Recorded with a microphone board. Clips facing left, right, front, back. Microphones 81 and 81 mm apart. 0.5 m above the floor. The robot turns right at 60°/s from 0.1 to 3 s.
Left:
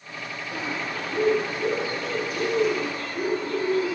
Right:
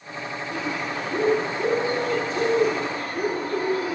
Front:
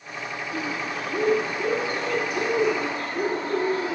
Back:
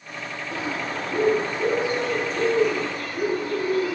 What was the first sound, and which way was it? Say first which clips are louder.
A bird: right 2 dB, back 2 dB; 170° left.